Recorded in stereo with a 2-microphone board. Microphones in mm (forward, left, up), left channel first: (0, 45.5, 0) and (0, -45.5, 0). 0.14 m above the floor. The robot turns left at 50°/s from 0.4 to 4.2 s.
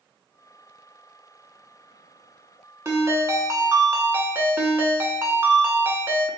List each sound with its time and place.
2.9 s a ringtone: 65° right, 0.6 m; by 6.3 s 130° right, 0.6 m